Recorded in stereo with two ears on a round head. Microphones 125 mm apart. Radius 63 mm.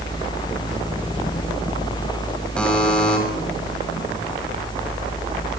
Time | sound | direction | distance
2.6 | a buzzer | 5° left (ahead or behind) | 7 m